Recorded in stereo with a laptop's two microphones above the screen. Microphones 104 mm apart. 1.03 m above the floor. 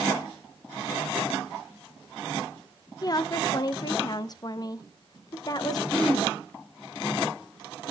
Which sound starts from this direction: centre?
Throat clearing, at 5.9 s.